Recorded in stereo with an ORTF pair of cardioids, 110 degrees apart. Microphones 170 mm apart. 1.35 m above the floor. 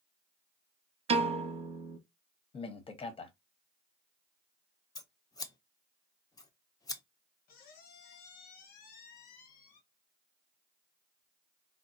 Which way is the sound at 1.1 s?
35° right.